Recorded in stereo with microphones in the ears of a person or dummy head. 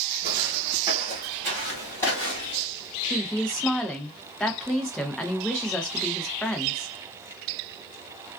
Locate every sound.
0.2 s footsteps: 25° right (ahead or behind), 1.6 m; by 2.6 s 25° left (ahead or behind), 1.6 m
3.1 s a woman speaking: 5° left (ahead or behind), 0.5 m